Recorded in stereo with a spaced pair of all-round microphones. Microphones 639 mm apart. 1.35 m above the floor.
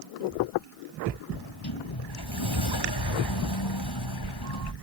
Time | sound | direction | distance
1.3 | a sliding door | 35° left (ahead or behind) | ?